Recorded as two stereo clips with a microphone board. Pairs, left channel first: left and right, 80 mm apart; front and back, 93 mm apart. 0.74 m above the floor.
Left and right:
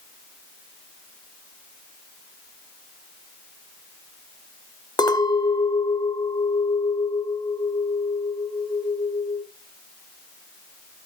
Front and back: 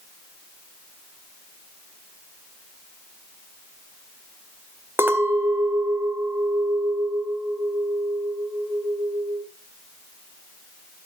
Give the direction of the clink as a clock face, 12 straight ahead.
8 o'clock.